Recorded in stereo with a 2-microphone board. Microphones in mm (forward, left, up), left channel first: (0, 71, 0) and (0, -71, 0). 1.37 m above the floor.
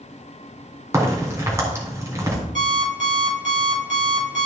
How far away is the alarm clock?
About 4 m.